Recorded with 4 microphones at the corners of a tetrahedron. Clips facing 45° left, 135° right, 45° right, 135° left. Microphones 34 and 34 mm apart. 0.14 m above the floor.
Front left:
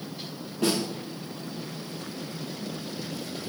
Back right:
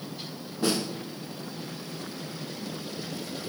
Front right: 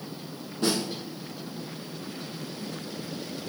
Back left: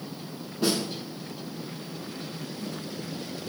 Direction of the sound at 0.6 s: 55° left.